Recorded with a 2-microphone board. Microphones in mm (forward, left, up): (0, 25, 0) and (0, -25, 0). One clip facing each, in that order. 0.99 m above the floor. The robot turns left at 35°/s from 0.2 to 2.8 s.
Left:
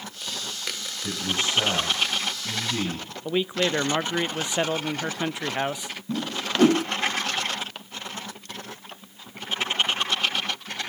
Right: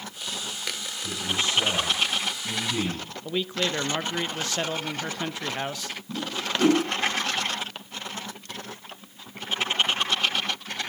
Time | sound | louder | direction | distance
1.0 | a man speaking | left 1 dB | 65° left | 6 m
3.2 | a man speaking | left 3 dB | 15° left (ahead or behind) | 0.7 m
6.1 | a whoosh | left 2 dB | 60° left (ahead or behind) | 4.5 m